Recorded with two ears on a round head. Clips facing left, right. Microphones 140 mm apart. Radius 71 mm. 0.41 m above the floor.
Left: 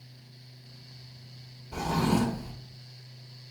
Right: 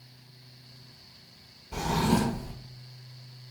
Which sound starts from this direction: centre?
A drawer, at 1.7 s.